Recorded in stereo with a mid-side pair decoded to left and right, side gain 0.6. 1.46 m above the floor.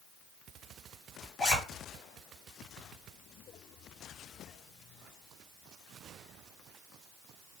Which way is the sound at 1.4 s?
25° left.